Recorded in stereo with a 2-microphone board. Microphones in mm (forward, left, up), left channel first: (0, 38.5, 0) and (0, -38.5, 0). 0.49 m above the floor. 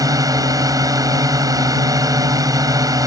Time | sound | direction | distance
0.0 | a drone | 50° right (ahead or behind) | ?